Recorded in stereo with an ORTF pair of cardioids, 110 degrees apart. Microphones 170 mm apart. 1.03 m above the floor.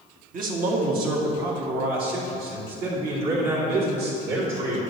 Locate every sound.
0.3 s a man speaking: 60° right, 1.3 m; by 4.8 s 70° right, 3.5 m